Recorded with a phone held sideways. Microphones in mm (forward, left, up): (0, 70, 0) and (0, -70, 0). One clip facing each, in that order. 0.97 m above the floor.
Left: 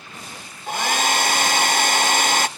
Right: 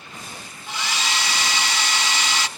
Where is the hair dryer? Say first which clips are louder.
Left 7 dB; 50° left (ahead or behind), 0.6 m.